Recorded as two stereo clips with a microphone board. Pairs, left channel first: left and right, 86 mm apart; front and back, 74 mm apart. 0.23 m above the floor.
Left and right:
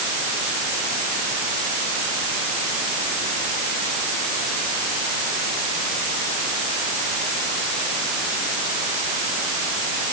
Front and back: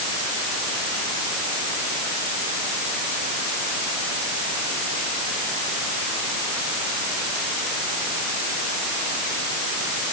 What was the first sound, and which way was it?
Only background noise.